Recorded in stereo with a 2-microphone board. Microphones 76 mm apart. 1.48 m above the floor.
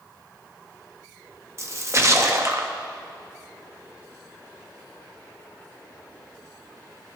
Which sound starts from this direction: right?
A splash, at 1.6 s.